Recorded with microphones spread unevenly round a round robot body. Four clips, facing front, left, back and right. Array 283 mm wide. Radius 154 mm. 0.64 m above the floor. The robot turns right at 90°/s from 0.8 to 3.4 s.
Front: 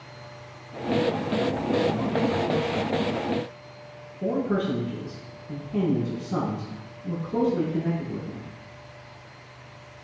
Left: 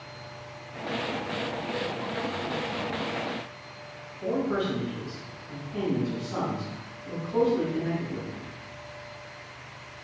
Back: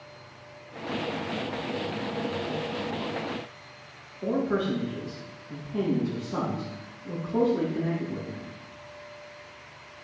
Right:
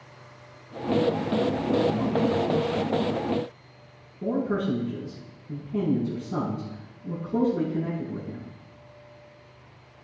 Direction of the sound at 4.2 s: 40° right.